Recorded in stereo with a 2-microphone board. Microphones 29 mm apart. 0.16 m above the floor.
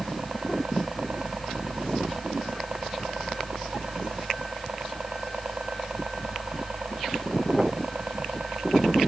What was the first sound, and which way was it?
A helicopter, 50° right (ahead or behind).